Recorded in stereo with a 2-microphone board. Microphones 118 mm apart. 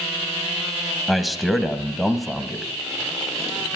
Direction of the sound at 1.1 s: Centre (ahead or behind).